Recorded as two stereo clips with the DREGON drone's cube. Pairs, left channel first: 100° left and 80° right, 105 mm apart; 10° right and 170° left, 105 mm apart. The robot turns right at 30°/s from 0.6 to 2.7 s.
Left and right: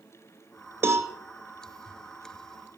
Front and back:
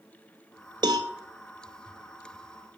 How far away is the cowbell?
About 1.1 m.